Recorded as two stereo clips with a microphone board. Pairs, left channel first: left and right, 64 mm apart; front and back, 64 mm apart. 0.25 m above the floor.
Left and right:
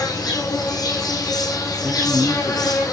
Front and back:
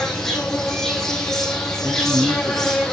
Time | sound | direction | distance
0.0 | an insect | 85° left | 4.5 m
1.8 | a man speaking | 170° right | 0.9 m